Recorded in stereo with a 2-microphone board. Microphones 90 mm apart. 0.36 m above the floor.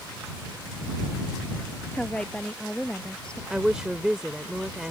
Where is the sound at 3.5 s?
10° right (ahead or behind).